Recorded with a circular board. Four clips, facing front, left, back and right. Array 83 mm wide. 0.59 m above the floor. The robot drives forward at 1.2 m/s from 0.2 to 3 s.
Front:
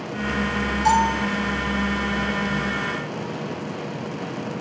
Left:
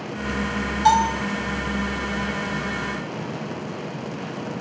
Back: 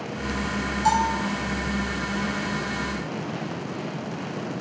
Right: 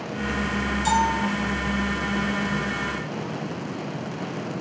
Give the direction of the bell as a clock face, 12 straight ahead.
9 o'clock.